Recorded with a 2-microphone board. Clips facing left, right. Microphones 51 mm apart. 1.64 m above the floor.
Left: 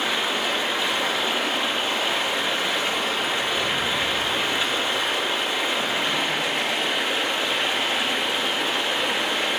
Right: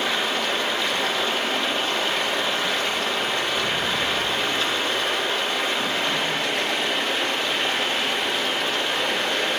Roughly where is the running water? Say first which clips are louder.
Even; centre.